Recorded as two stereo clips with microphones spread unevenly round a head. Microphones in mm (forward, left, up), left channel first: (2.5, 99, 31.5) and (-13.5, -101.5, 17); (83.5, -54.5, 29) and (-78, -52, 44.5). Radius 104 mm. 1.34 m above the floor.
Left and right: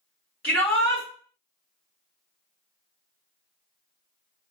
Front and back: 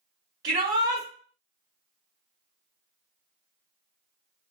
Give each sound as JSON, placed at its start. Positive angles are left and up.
{"t": 0.4, "sound": "a shout", "azimuth_deg": 135, "distance_m": 1.2}